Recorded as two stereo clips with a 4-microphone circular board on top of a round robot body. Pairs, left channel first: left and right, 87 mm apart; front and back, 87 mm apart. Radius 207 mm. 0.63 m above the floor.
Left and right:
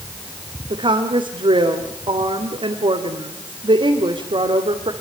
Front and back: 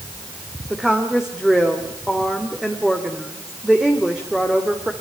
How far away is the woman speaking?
About 3 m.